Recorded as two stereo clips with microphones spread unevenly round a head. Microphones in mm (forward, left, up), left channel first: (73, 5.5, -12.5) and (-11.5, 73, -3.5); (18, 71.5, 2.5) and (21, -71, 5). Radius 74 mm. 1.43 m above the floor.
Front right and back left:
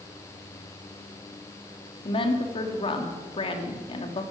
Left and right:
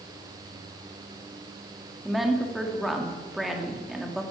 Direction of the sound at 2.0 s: Straight ahead.